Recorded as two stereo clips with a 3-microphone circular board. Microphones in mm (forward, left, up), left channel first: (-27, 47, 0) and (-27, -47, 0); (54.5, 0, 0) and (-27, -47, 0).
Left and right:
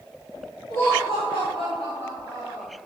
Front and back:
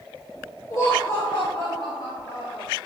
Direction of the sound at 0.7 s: 75° left.